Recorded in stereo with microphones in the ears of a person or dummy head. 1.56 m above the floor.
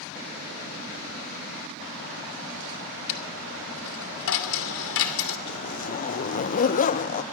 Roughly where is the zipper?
Left.